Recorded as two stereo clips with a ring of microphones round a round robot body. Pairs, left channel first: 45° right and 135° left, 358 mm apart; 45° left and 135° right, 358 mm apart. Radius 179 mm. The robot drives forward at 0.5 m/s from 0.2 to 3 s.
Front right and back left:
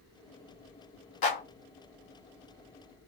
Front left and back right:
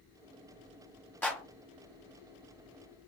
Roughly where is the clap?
Ahead right.